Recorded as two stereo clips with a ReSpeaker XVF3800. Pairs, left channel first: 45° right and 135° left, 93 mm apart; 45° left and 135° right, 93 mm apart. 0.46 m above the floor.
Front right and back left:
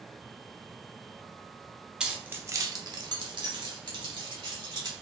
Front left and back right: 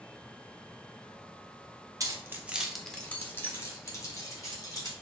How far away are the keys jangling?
About 0.6 m.